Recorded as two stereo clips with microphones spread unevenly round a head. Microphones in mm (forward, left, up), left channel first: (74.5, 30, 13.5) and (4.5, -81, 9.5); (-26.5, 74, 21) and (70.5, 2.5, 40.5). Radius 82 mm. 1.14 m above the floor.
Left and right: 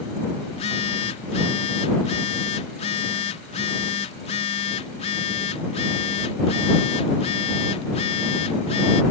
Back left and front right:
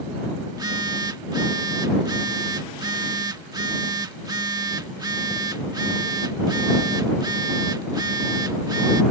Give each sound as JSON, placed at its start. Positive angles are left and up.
{"t": 0.5, "sound": "a phone buzzing", "azimuth_deg": 20}